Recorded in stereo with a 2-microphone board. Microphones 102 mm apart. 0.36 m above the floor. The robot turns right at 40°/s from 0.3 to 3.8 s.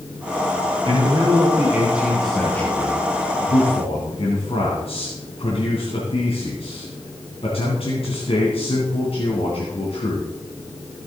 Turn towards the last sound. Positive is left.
turn(degrees=65)